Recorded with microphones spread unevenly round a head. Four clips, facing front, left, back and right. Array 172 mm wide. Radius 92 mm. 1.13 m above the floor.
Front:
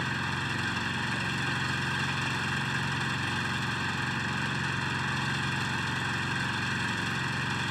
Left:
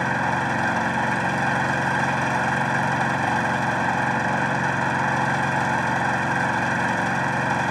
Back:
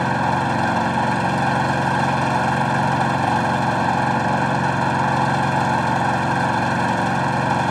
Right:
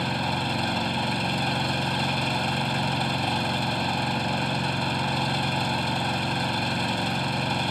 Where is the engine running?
170° left.